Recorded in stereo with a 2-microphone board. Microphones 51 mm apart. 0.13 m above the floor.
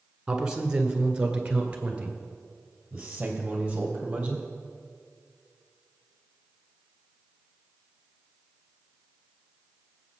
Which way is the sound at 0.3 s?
15° right (ahead or behind).